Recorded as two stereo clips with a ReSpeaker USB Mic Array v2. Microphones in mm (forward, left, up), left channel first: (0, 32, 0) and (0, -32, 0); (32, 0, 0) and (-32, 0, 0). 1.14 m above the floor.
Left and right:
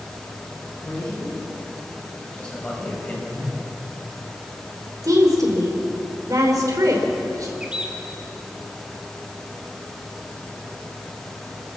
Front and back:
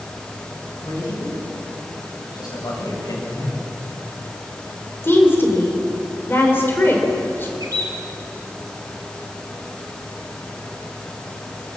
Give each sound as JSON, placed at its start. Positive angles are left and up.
{"t": 0.8, "sound": "a man speaking", "azimuth_deg": 15, "distance_m": 9.0}
{"t": 3.3, "sound": "a whoosh", "azimuth_deg": -40, "distance_m": 3.5}
{"t": 5.0, "sound": "a woman speaking", "azimuth_deg": -60, "distance_m": 4.0}
{"t": 7.6, "sound": "a bird", "azimuth_deg": -165, "distance_m": 2.0}